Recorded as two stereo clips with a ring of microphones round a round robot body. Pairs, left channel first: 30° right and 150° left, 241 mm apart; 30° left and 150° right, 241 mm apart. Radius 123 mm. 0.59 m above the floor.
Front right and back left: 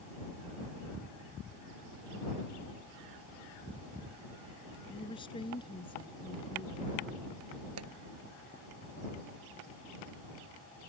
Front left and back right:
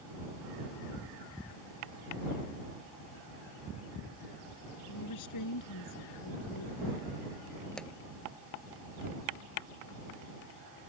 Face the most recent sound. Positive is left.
turn(degrees=115)